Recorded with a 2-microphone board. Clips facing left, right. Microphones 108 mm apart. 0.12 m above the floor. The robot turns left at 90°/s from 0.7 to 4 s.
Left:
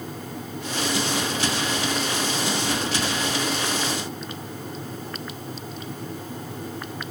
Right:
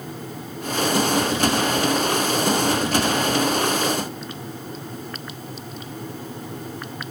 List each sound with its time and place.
Only background noise.